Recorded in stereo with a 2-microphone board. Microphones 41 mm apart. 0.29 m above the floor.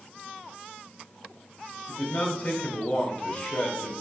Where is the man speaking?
35° left (ahead or behind), 1.1 m.